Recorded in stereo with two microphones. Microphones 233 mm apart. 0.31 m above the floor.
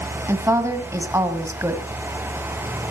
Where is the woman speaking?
10° right (ahead or behind), 1.8 m.